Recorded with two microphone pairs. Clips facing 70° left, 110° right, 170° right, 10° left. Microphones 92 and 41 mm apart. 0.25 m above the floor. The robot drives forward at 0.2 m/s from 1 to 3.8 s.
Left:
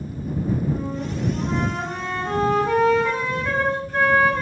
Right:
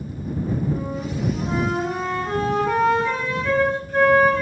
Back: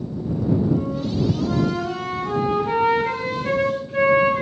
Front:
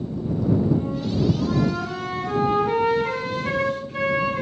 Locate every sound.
0.7 s a flute: 175° left, 1.5 m